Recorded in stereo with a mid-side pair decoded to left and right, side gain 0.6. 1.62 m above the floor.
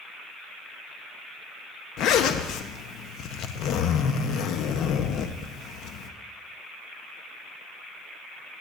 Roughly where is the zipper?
Ahead left.